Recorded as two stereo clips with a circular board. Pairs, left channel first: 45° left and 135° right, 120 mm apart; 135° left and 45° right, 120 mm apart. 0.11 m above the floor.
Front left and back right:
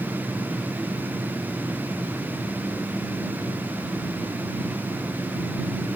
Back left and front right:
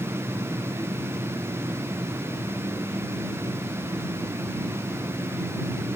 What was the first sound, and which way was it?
Only background noise.